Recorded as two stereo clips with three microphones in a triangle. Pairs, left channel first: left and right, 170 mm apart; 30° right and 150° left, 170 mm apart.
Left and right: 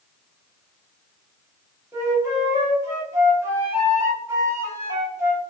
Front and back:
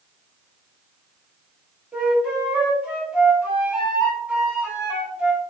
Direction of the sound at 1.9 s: 135° right.